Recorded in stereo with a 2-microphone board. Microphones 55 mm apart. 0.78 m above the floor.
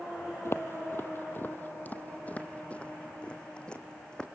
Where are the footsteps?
50° left (ahead or behind), 1.2 m; by 4.2 s 15° left (ahead or behind), 2.5 m.